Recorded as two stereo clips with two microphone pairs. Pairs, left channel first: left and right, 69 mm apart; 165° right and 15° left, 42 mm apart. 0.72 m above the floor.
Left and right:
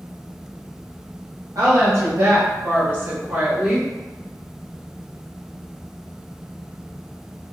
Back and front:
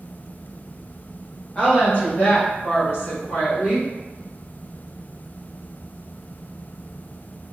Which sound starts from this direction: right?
A woman speaking, at 1.6 s.